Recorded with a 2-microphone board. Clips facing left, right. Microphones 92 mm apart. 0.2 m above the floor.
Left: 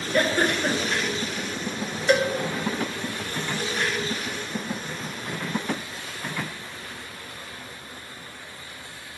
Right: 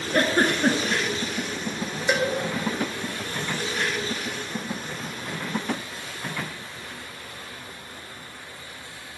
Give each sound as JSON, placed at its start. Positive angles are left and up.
{"t": 0.1, "sound": "a giggle", "side_deg": -50, "distance_m": 1.3}
{"t": 2.1, "sound": "a cowbell", "side_deg": -10, "distance_m": 1.1}